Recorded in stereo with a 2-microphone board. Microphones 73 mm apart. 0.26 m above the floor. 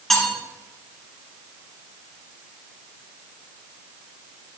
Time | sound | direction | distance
0.1 | cutlery clinking | 5° left (ahead or behind) | 2 m